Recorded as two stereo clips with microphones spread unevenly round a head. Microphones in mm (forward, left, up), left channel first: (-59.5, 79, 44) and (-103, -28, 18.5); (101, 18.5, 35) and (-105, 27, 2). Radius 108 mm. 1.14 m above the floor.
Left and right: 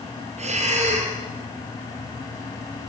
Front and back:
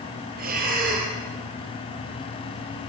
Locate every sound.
0.4 s breathing: 130° right, 5.5 m